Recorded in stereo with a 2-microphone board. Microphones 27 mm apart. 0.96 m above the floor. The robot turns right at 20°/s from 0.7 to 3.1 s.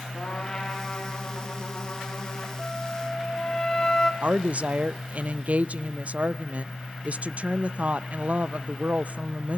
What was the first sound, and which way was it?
A trumpet, 25° left.